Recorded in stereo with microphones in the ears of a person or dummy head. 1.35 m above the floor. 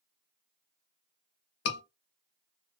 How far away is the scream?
About 1.6 m.